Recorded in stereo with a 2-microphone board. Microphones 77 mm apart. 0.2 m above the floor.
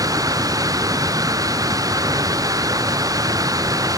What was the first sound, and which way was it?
Running water, 50° right (ahead or behind).